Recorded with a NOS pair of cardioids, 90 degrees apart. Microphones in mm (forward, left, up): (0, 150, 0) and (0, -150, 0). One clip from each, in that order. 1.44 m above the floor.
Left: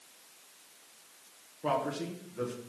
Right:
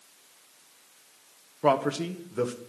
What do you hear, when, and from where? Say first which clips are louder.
1.6 s a man speaking: right 8 dB; 65° right, 1.2 m